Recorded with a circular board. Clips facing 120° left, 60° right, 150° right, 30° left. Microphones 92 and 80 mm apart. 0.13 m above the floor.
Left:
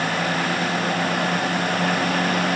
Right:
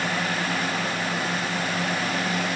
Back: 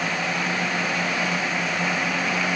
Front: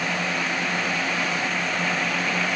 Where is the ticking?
No ticking in this recording.